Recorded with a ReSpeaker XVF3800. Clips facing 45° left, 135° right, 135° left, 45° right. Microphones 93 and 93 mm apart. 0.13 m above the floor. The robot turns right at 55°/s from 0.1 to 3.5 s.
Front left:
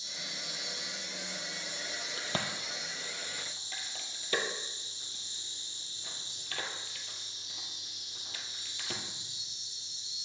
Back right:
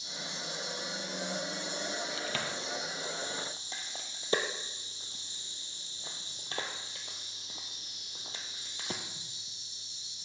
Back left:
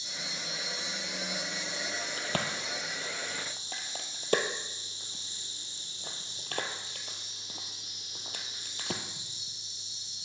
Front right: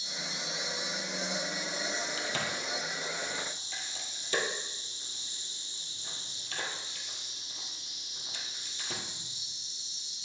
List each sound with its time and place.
0.0 s an insect: 10° right, 3 m; by 10.3 s 175° left, 3 m
2.2 s a crack: 95° left, 1.0 m; by 9.0 s 165° left, 1.0 m